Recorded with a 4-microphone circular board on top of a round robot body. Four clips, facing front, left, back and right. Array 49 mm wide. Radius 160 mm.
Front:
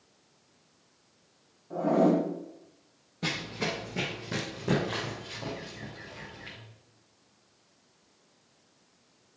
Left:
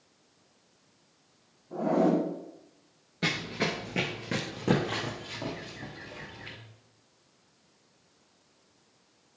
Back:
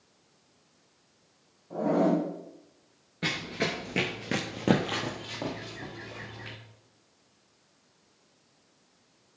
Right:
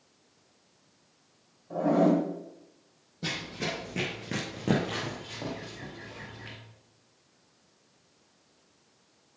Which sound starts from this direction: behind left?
Running footsteps, at 3.2 s.